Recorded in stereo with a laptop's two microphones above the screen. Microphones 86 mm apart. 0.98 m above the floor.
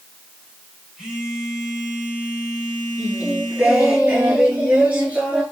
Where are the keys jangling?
No keys jangling in this recording.